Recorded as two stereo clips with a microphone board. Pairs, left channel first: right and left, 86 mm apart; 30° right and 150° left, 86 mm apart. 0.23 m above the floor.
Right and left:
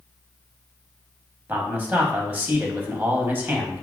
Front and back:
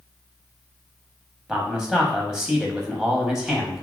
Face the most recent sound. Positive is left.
turn(degrees=80)